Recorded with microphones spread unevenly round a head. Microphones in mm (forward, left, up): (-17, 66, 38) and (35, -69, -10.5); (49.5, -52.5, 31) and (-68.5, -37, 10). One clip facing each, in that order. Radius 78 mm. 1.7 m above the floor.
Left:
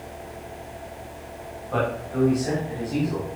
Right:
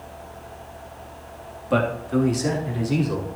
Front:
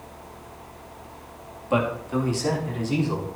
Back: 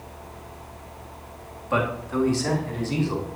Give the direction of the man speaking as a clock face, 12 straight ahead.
2 o'clock.